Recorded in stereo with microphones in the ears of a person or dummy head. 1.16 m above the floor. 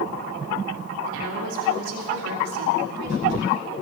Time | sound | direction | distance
1.1 | a woman speaking | 80° right | 2.5 m